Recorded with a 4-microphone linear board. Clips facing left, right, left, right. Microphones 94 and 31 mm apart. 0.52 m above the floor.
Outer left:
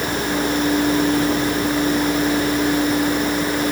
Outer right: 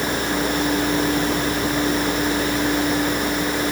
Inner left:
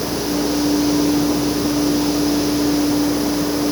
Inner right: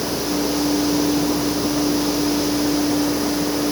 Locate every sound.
Only background noise.